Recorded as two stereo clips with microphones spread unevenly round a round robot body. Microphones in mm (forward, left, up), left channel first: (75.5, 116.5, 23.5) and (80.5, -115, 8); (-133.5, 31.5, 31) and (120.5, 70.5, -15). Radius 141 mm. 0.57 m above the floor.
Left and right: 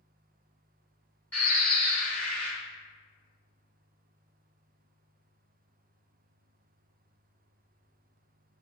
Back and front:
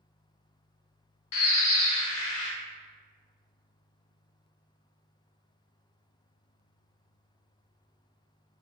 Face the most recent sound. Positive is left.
turn(degrees=175)